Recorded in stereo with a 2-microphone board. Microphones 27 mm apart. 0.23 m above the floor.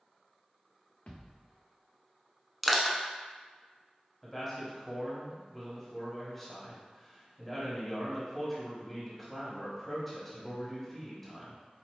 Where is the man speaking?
10° left (ahead or behind), 1.3 m.